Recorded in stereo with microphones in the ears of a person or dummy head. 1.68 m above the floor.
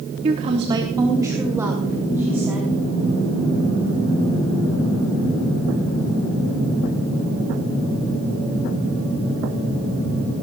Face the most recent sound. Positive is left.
turn(degrees=-5)  # may be behind; listen again after turning